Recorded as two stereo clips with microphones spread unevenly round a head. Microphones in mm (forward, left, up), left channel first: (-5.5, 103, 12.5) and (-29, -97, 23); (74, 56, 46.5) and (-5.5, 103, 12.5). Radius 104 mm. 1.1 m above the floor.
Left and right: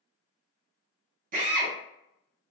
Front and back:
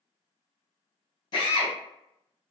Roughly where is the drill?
Right.